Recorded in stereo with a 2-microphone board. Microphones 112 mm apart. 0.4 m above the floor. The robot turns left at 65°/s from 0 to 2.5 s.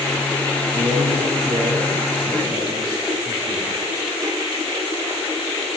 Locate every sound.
0.7 s a man speaking: 80° right, 6.5 m; by 3.8 s 165° left, 6.5 m